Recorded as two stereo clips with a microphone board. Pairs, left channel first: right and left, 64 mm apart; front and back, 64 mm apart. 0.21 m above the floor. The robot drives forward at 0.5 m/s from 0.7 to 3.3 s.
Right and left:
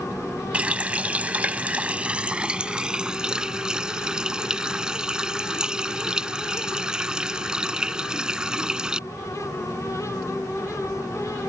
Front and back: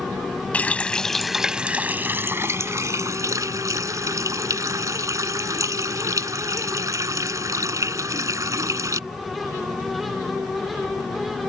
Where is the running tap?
40° left; by 9.0 s 165° left.